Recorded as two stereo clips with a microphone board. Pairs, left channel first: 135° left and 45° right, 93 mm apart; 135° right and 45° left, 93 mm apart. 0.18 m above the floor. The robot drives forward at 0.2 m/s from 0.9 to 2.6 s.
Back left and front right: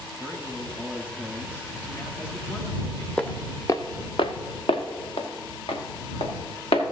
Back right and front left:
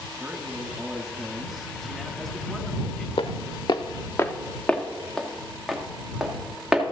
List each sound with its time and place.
0.2 s a man speaking: 110° left, 1.0 m; by 3.1 s 145° left, 1.1 m
3.2 s footsteps: 145° right, 0.8 m; by 6.8 s 125° left, 2.5 m